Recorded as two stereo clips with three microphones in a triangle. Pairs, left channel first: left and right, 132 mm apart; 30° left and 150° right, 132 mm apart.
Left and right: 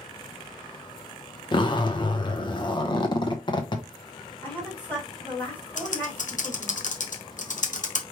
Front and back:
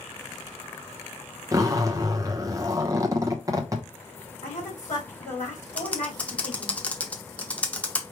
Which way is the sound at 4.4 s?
15° left.